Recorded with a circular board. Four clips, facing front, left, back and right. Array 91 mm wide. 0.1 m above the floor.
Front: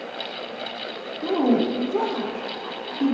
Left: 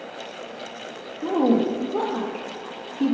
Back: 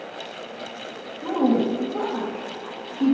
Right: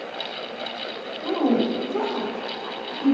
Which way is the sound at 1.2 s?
80° left.